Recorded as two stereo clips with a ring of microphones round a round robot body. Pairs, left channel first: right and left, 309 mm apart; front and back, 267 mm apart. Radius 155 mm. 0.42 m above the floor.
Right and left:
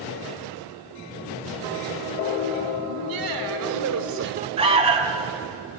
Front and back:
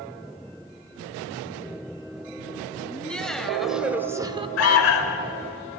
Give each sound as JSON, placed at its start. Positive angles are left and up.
{"t": 2.9, "sound": "laughter", "azimuth_deg": 85, "distance_m": 2.5}
{"t": 4.6, "sound": "an alarm", "azimuth_deg": 20, "distance_m": 1.5}